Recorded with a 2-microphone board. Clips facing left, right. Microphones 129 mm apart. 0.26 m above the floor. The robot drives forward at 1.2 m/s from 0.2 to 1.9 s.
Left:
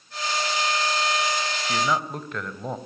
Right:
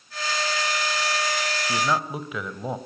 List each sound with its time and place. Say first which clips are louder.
1.6 s a man speaking: even; 5° right (ahead or behind), 1.5 m